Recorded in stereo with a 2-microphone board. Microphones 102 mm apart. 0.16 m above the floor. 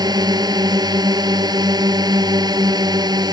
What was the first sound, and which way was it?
A drone, 45° right (ahead or behind).